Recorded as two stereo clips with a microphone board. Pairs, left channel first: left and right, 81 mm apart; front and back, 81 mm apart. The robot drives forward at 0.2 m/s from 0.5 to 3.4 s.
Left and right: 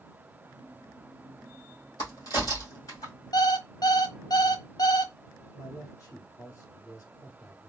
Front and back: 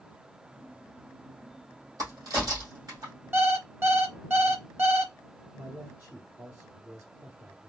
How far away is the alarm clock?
About 0.9 m.